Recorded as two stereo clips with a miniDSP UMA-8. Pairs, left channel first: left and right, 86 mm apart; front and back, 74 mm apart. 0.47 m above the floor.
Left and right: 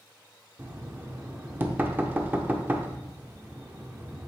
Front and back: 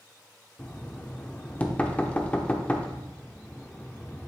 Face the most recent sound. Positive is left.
turn(degrees=-50)